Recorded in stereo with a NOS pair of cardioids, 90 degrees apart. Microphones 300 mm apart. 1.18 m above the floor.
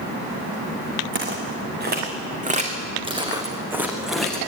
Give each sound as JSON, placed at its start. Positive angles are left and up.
{"t": 1.1, "sound": "footsteps", "azimuth_deg": -40, "distance_m": 6.5}